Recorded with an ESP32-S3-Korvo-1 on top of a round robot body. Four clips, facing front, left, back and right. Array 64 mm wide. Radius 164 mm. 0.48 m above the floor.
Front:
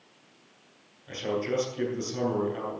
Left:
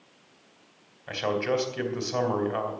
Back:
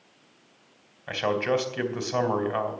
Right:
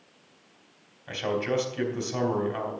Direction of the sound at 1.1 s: 165° left.